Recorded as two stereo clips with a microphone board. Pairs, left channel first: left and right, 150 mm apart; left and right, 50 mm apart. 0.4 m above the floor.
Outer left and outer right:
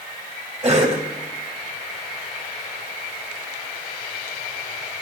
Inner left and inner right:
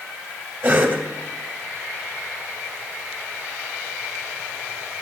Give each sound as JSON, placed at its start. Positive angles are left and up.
{"t": 0.6, "sound": "a cough", "side_deg": -40, "distance_m": 1.8}